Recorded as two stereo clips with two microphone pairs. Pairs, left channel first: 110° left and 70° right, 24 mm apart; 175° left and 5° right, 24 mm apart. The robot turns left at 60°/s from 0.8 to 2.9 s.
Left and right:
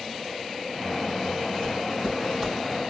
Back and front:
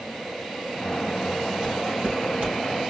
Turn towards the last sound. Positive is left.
turn(degrees=-20)